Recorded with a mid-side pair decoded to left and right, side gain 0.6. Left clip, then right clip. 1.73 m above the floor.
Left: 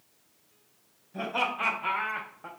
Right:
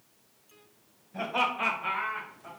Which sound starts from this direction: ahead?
Laughter, at 1.1 s.